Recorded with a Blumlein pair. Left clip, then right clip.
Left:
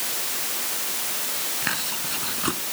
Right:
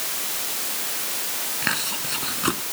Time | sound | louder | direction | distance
1.6 | chewing | right 4 dB | 10° right | ?